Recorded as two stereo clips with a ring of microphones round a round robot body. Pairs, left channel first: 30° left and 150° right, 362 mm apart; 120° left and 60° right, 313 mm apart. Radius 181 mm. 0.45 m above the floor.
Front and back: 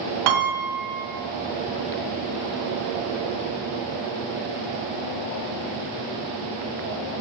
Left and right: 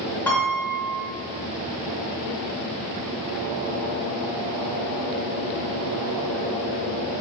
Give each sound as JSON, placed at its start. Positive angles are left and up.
{"t": 0.3, "sound": "a piano", "azimuth_deg": -155, "distance_m": 0.5}